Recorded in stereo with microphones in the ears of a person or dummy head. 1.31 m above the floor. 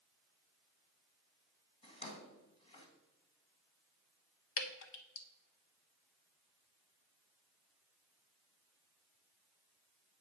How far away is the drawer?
About 2.0 m.